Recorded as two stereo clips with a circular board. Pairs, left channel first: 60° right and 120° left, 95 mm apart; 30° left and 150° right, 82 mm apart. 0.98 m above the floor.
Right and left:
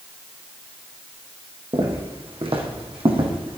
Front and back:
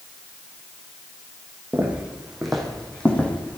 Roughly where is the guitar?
No guitar in this recording.